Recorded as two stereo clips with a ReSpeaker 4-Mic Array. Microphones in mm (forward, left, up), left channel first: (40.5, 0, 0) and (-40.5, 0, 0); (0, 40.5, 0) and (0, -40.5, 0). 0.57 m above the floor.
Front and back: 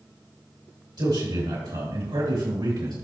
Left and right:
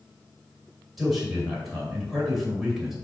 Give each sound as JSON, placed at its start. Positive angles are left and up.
{"t": 1.0, "sound": "a man speaking", "azimuth_deg": -175, "distance_m": 2.5}